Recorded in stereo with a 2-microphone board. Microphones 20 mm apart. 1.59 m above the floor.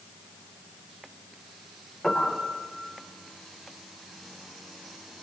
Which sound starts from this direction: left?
A piano, at 2.0 s.